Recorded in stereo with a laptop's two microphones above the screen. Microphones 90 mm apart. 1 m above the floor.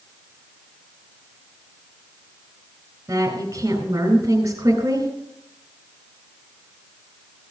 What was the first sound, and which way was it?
A woman speaking, 35° right (ahead or behind).